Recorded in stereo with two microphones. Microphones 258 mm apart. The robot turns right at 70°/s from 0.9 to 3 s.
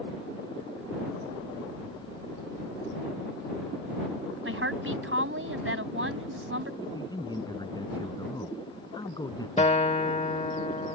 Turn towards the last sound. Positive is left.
turn(degrees=25)  # may be behind; listen again after turning